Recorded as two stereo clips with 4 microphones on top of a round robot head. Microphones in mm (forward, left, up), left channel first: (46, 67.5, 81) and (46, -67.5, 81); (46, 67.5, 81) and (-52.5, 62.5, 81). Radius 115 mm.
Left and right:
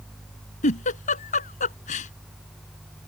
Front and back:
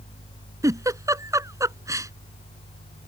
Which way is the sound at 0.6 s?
125° left.